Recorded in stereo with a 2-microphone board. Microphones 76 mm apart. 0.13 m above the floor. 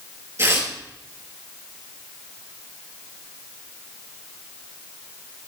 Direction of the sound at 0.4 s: 40° right (ahead or behind).